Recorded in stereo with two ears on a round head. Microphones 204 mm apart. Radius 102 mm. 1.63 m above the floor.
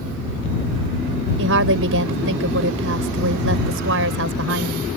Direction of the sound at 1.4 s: 60° right (ahead or behind).